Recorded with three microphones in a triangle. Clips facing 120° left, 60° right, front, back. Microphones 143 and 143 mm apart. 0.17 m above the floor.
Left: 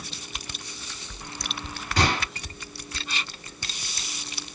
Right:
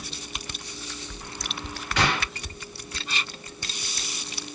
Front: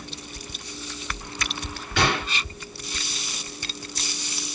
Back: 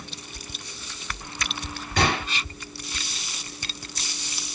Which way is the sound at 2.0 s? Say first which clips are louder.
Left 1 dB, even; 160° left.